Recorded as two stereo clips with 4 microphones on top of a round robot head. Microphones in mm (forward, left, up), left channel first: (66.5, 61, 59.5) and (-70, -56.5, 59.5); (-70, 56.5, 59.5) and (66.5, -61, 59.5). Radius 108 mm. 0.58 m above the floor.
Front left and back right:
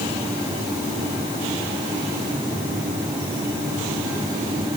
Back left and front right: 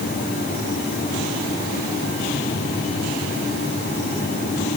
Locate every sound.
Only background noise.